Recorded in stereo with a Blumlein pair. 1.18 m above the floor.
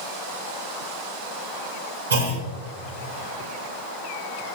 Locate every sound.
2.1 s a clunk: 70° right, 4 m